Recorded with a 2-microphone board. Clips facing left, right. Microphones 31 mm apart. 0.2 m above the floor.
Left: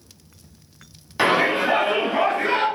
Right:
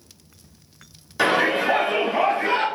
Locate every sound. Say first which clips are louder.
1.2 s a shout: left 1 dB; 30° left (ahead or behind), 1.3 m; by 2.6 s 60° left (ahead or behind), 3 m